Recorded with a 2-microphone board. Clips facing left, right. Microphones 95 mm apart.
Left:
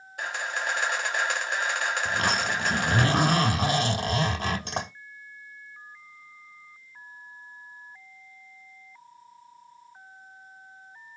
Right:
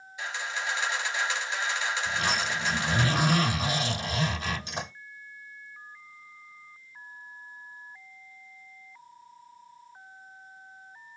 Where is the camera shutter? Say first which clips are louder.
Left 3 dB; 60° left (ahead or behind), 1.0 m.